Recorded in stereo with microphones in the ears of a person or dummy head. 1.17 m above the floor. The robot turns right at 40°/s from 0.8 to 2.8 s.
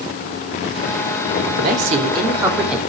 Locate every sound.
1.5 s a man speaking: 55° right, 2.5 m; by 2.8 s 5° right, 2.5 m